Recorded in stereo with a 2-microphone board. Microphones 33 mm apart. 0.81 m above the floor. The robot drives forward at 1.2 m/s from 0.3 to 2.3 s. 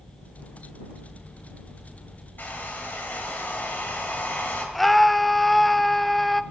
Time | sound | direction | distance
2.4 | a hair dryer | 70° left (ahead or behind) | 2.5 m
4.8 | a scream | 10° left (ahead or behind) | 0.5 m